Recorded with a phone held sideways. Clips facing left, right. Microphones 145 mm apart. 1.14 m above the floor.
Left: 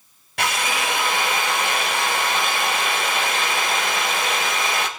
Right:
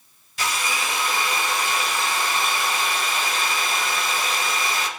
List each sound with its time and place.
0.4 s a drill: 65° left (ahead or behind), 1.6 m